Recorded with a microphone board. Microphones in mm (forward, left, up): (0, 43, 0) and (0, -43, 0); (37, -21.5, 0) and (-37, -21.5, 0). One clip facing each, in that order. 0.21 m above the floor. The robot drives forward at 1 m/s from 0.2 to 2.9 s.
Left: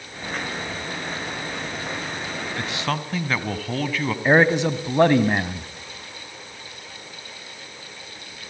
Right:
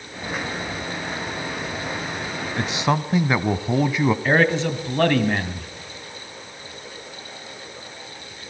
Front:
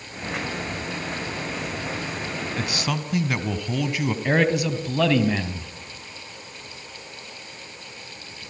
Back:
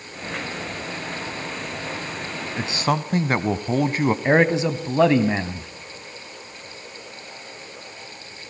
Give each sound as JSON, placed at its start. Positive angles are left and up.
{"t": 2.6, "sound": "a man speaking", "azimuth_deg": -140, "distance_m": 1.1}
{"t": 4.2, "sound": "a man speaking", "azimuth_deg": 145, "distance_m": 1.7}